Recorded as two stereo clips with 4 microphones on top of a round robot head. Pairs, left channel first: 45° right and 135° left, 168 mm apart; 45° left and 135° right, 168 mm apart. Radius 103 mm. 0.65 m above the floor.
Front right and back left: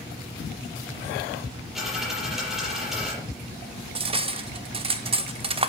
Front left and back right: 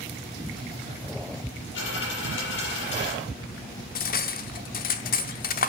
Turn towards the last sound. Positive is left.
turn(degrees=80)